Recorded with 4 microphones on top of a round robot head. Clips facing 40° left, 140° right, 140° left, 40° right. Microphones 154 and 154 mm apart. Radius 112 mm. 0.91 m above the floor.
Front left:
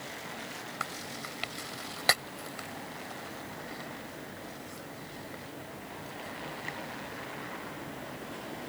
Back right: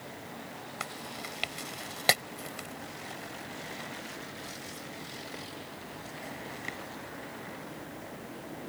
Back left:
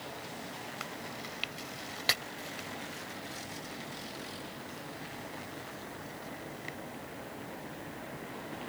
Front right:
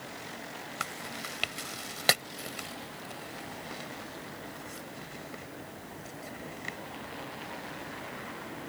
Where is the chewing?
70° right.